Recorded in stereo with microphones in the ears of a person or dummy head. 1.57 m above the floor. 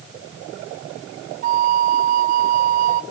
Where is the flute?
45° right (ahead or behind), 0.6 m.